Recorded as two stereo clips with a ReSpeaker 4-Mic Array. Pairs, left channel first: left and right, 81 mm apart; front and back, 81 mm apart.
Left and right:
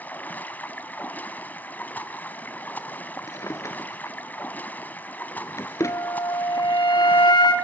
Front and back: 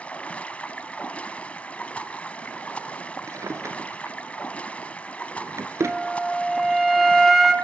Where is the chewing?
I don't hear chewing.